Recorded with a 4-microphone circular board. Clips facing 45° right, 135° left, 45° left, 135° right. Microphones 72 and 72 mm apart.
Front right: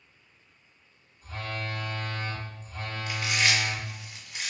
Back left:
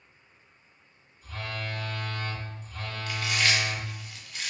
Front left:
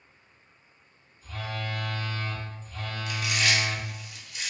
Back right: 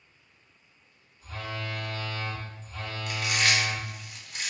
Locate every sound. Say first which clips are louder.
1.2 s a phone buzzing: front right 1 dB, front left 1 dB; 95° right, 1.1 m
3.1 s chewing: even, back right 1 dB; 110° right, 0.9 m